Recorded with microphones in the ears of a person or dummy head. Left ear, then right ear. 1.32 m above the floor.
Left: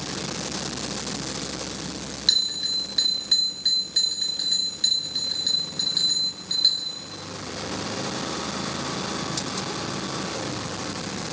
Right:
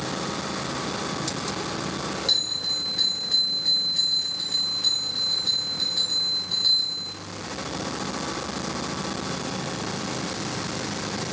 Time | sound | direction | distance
2.3 | a bell | 30° left (ahead or behind) | 0.9 m